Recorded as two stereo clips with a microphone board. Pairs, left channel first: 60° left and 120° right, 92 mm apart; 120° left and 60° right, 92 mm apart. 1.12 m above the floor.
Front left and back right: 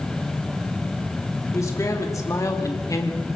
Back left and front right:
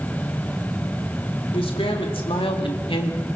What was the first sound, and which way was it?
A man speaking, 115° left.